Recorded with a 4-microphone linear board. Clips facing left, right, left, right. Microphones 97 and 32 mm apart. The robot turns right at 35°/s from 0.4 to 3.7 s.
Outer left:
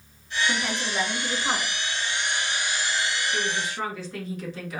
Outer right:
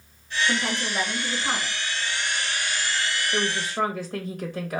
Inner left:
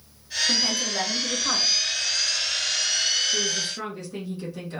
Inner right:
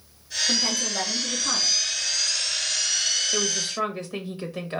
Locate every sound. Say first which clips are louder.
0.5 s a woman speaking: outer right 2 dB, even; 25° right, 1.3 m; by 1.8 s 20° left, 1.3 m
3.3 s a woman speaking: outer right 2 dB, even; 60° right (ahead or behind), 0.8 m; by 4.8 s 45° right (ahead or behind), 0.8 m